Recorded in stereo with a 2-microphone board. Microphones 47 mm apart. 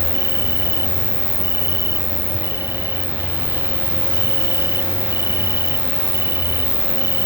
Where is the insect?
70° right (ahead or behind).